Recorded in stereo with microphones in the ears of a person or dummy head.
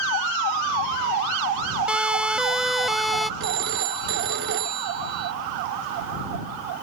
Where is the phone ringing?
60° right (ahead or behind).